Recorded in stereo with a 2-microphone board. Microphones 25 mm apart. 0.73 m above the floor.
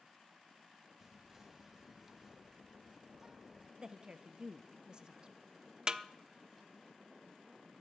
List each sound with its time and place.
1.0 s whispering: 10° right (ahead or behind), 0.7 m
3.8 s a woman speaking: 30° right (ahead or behind), 0.7 m
5.9 s a snare drum: 30° right (ahead or behind), 0.5 m